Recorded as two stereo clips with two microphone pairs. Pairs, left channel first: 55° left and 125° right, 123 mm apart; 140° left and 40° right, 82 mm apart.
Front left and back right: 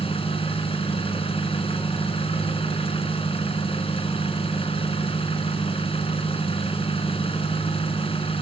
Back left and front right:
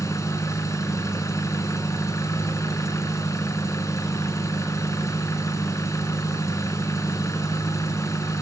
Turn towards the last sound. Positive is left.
turn(degrees=90)